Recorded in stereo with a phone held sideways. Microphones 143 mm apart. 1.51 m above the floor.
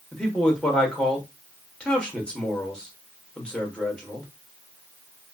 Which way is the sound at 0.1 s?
5° left (ahead or behind).